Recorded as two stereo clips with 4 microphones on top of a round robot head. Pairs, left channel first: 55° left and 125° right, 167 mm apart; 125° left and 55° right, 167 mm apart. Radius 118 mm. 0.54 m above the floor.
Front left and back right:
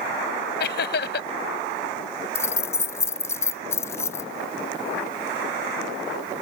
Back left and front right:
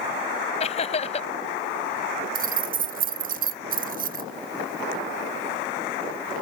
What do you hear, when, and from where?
0.6 s laughter: 75° left
2.4 s keys jangling: 20° right